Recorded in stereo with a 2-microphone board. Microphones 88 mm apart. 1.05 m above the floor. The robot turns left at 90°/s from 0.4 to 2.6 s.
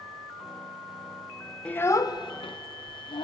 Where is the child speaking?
15° left (ahead or behind), 0.6 m; by 3.2 s 75° left (ahead or behind), 0.6 m.